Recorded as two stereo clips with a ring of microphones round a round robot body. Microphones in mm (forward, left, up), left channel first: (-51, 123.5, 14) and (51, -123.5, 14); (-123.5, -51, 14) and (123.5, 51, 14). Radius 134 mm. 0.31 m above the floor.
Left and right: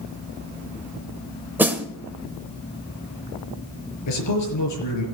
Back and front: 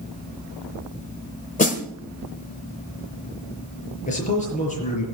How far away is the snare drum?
About 1.5 m.